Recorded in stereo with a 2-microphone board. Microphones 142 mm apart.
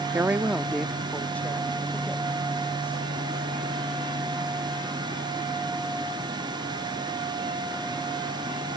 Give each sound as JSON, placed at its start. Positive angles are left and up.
{"t": 0.1, "sound": "a woman speaking", "side_deg": -15}